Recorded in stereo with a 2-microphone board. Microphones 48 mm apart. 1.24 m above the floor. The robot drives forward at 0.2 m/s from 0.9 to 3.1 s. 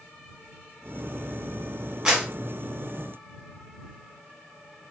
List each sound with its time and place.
2.0 s a clap: 20° right (ahead or behind), 1.5 m